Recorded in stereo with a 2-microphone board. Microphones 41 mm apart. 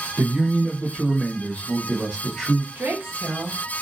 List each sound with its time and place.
0.2 s a man speaking: 30° right (ahead or behind), 0.8 m; by 2.6 s 10° left (ahead or behind), 1.8 m
2.8 s a woman speaking: 60° right (ahead or behind), 1.0 m